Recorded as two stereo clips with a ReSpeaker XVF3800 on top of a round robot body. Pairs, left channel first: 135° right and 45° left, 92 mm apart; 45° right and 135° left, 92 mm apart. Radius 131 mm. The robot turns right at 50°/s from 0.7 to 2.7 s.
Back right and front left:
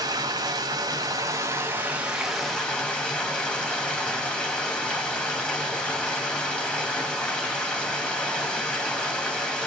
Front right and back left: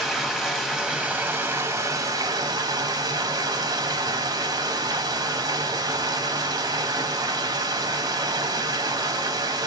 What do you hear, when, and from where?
0.0 s running water: 50° left, 1.5 m; by 9.7 s 150° left, 1.5 m